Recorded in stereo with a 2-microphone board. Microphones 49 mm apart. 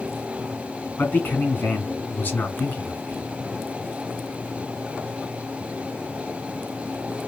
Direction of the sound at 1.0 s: 40° left (ahead or behind).